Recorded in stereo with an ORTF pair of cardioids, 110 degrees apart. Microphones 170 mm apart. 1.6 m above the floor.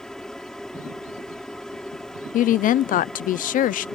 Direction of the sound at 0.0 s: 5° left.